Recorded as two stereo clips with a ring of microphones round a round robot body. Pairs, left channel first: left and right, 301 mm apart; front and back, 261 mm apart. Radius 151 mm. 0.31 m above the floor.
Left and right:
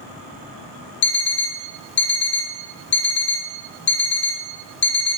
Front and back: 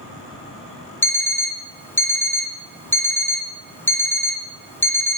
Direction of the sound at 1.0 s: 75° left.